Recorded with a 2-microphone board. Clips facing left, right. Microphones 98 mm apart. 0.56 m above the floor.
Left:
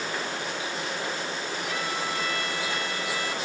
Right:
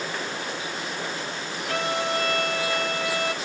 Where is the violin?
60° right (ahead or behind), 0.7 m.